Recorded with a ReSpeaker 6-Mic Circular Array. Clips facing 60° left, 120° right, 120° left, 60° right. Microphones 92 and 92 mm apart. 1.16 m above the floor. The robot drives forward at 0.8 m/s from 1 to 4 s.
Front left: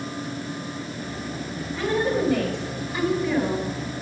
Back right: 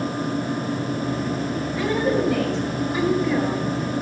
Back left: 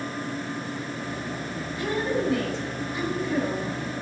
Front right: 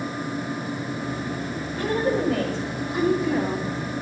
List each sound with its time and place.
1.8 s a woman speaking: 40° right, 3.5 m; by 3.9 s 70° right, 2.5 m